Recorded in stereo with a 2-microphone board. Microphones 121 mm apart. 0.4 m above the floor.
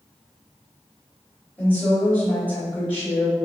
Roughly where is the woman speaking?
Centre.